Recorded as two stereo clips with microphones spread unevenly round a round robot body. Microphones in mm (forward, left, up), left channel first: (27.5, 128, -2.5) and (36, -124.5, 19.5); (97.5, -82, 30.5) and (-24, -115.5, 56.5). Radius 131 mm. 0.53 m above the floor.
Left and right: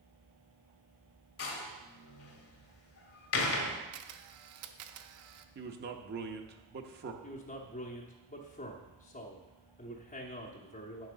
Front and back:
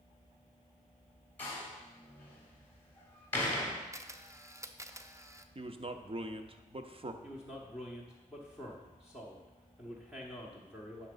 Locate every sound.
1.4 s a door slam: 85° left, 1.2 m
3.9 s a camera shutter: 90° right, 0.7 m
5.5 s a man speaking: 125° right, 0.8 m
7.2 s a man speaking: 100° left, 0.9 m